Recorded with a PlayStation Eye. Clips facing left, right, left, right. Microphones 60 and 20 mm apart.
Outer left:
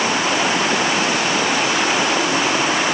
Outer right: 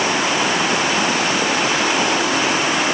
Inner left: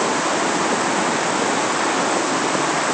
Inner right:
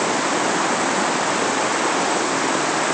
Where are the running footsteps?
No running footsteps in this recording.